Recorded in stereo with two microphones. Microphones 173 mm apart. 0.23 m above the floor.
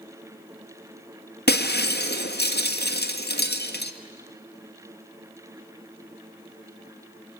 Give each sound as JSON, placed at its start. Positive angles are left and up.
{"t": 1.5, "sound": "breaking glass", "side_deg": 75, "distance_m": 1.5}